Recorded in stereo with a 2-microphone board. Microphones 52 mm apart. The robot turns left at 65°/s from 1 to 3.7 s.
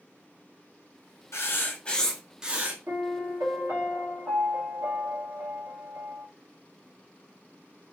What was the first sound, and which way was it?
Writing, 60° left.